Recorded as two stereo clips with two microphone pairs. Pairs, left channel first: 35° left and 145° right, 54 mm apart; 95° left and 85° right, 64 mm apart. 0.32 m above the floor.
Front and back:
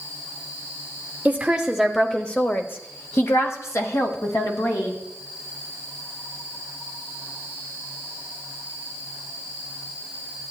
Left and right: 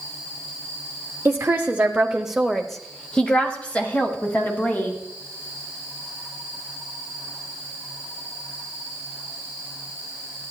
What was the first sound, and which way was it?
A woman speaking, 105° right.